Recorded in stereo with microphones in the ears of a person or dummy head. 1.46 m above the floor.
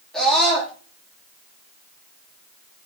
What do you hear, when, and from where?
0.1 s a scream: centre (ahead or behind), 3.5 m